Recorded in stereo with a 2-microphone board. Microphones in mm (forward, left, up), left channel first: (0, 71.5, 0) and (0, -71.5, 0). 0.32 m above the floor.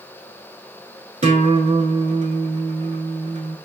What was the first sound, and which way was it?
A guitar, 55° right (ahead or behind).